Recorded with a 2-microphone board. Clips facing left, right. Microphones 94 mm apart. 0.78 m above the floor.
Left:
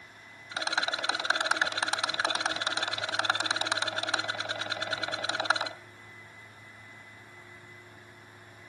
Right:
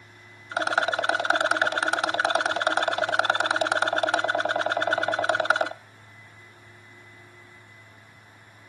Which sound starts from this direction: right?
A rattle, at 0.5 s.